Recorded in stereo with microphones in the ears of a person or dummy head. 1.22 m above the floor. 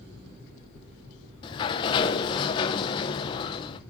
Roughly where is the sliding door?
Left.